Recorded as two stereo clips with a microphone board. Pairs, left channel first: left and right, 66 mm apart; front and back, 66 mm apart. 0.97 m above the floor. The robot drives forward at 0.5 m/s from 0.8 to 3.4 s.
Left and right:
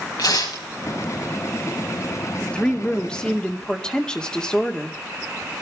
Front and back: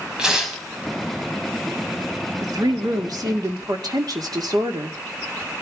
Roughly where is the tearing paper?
Left.